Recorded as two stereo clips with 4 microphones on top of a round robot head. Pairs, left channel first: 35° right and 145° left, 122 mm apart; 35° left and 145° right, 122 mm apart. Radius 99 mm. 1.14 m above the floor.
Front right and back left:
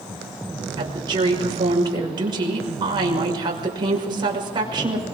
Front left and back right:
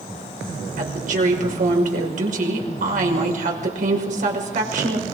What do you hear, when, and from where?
0.8 s a woman speaking: 160° right, 5.5 m